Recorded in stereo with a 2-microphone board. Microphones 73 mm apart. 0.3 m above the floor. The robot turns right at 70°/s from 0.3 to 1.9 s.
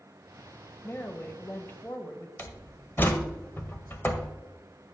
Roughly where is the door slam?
Left.